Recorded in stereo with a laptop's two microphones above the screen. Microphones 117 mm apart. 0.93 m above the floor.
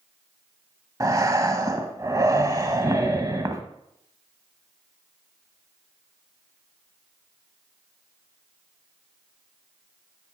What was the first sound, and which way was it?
Breathing, 30° right (ahead or behind).